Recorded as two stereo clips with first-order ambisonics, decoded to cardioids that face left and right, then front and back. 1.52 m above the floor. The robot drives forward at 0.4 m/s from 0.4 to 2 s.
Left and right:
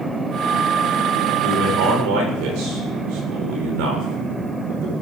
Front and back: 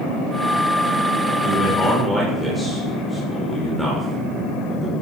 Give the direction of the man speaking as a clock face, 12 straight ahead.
3 o'clock.